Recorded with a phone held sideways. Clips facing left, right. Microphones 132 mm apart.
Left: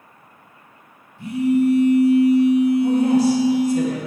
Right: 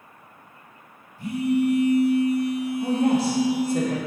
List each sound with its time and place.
1.2 s a phone buzzing: 25° left (ahead or behind), 2 m
2.8 s a woman speaking: 55° right (ahead or behind), 1.8 m